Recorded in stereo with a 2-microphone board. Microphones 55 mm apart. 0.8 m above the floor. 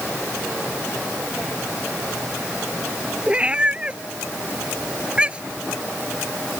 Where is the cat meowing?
20° right (ahead or behind).